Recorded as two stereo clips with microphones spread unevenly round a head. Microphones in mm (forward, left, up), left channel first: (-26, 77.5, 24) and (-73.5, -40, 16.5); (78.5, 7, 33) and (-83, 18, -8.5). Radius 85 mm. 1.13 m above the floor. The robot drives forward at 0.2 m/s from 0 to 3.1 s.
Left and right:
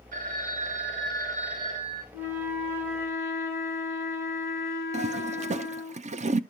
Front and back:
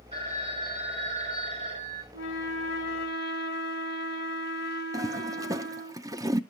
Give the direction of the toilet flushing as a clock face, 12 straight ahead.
4 o'clock.